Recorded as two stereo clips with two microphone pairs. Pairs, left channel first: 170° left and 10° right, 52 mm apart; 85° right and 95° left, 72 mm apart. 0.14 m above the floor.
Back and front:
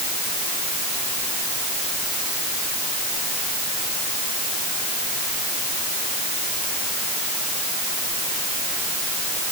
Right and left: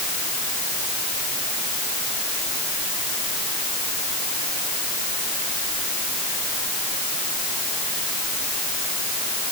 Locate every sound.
Only background noise.